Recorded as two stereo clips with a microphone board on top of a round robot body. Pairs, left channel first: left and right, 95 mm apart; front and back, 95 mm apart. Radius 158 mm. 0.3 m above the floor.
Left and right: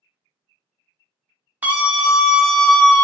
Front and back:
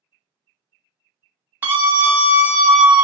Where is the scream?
140° right, 1.5 m; by 3.0 s 130° left, 1.4 m.